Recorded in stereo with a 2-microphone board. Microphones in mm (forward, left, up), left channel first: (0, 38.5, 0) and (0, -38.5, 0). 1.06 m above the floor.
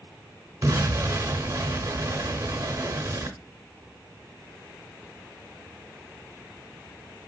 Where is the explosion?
40° right (ahead or behind), 1.0 m.